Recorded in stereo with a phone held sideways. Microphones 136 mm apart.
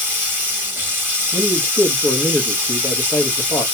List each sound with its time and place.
0.0 s running water: 15° right (ahead or behind), 1.2 m
1.3 s a man speaking: 20° left (ahead or behind), 1.0 m